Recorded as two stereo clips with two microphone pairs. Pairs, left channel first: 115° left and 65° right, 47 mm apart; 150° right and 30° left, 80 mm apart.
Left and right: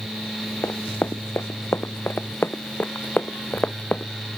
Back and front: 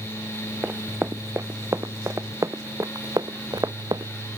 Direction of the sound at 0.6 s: 95° left.